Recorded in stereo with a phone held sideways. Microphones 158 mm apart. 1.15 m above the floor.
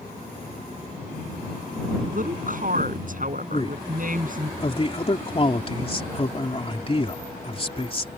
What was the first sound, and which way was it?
A woman speaking, 60° right (ahead or behind).